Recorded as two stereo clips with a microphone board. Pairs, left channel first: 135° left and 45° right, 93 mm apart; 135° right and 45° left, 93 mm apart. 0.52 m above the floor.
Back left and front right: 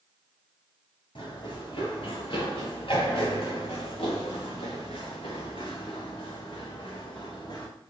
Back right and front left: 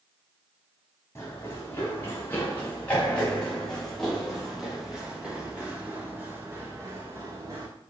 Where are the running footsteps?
160° left, 4.5 m; by 7.7 s 95° left, 3 m.